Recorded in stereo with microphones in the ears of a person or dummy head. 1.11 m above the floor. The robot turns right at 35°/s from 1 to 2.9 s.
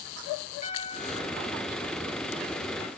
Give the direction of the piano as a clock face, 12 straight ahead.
7 o'clock.